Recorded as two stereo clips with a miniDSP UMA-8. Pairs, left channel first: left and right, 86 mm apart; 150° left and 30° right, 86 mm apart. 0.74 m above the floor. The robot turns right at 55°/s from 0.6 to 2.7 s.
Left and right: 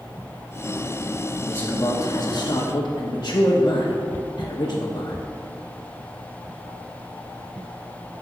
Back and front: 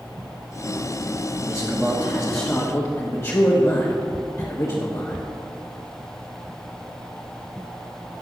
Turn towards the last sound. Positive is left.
turn(degrees=110)